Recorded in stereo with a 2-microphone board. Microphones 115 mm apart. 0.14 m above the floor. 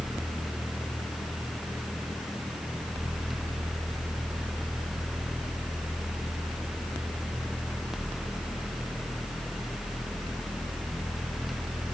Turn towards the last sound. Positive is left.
No sound to turn to.